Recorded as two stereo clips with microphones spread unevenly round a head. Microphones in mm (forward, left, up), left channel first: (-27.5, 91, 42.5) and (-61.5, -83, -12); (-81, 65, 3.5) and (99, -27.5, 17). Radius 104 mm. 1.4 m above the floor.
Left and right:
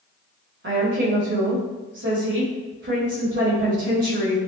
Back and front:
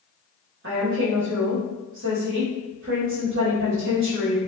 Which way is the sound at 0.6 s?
65° right.